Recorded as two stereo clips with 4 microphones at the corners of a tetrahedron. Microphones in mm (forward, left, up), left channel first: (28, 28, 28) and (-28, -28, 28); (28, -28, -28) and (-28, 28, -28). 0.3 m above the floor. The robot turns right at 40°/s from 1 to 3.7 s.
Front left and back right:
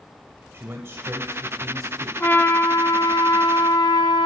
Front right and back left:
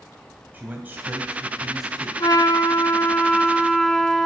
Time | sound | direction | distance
0.5 | a man speaking | 175° right | 1.3 m
2.2 | a trumpet | 20° right | 1.1 m